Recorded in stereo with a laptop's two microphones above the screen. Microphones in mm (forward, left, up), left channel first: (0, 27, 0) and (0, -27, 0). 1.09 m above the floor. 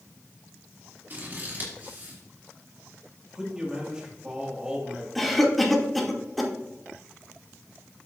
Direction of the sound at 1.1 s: 35° right (ahead or behind).